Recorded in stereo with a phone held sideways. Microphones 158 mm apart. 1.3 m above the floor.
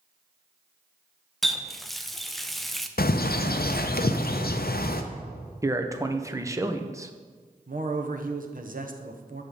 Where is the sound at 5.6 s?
20° right (ahead or behind), 0.7 m.